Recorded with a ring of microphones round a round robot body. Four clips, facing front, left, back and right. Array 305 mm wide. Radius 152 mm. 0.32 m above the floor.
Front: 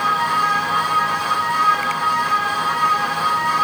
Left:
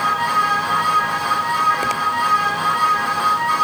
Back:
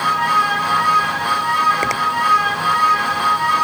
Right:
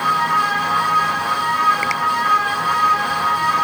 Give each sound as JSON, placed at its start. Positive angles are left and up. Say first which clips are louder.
{"t": 1.8, "sound": "a finger snap", "louder": "even, back 2 dB", "azimuth_deg": 160}